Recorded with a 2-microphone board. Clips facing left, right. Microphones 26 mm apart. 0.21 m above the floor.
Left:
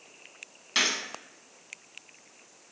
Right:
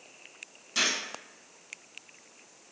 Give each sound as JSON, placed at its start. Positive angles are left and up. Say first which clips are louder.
{"t": 0.8, "sound": "a gunshot", "louder": "left 2 dB", "side_deg": 45, "distance_m": 0.7}